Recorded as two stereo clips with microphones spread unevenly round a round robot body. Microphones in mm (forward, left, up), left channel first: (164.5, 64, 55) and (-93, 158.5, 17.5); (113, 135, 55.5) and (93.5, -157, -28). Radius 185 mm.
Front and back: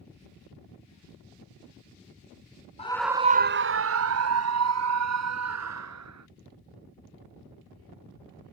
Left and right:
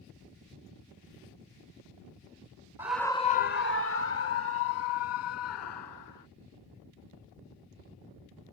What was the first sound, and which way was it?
A scream, 75° right.